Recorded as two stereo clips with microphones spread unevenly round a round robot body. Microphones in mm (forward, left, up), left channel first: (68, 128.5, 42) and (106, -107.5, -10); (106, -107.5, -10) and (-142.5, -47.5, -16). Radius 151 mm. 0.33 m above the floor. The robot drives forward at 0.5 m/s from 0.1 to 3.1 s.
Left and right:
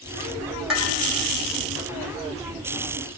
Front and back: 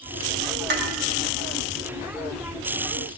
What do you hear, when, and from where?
0.7 s dishes clattering: 155° right, 1.2 m; by 0.9 s 160° right, 1.2 m